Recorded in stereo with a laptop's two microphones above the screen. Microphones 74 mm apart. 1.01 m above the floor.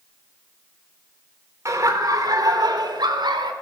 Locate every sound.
1.6 s laughter: 40° right (ahead or behind), 3 m; by 3.5 s 75° right (ahead or behind), 3 m